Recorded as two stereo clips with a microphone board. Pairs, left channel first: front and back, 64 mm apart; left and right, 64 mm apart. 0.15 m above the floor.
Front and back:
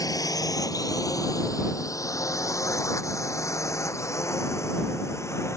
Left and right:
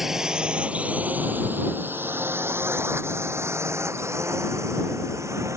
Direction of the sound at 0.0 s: 5° right.